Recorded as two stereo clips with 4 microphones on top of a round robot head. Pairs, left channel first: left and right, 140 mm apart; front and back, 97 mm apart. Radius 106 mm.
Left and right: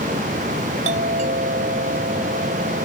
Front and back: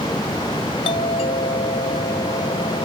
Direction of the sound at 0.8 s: 45° right.